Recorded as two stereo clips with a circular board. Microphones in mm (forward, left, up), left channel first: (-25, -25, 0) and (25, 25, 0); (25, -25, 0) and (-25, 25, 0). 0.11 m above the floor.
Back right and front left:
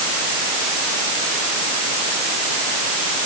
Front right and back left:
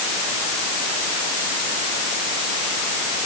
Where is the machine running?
I don't hear a machine running.